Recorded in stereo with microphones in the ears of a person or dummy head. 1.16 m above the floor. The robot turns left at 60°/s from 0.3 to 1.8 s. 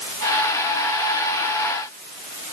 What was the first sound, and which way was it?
Only background noise.